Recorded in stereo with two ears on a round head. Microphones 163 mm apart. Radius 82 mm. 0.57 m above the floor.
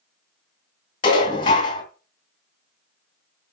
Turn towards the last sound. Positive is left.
turn(degrees=25)  # may be behind; listen again after turning